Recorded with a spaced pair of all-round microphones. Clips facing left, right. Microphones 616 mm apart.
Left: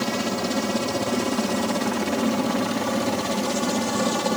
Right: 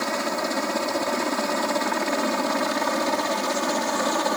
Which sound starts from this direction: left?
A helicopter, at 0.0 s.